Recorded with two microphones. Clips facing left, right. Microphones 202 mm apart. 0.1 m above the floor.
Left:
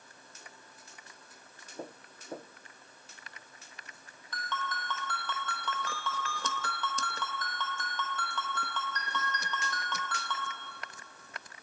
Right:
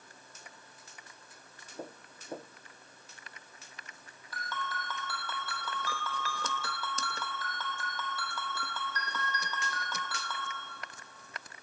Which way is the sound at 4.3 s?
10° right (ahead or behind).